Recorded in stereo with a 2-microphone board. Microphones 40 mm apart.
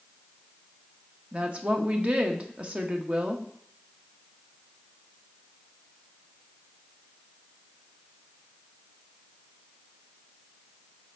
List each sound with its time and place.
1.3 s a woman speaking: 35° right (ahead or behind), 1.1 m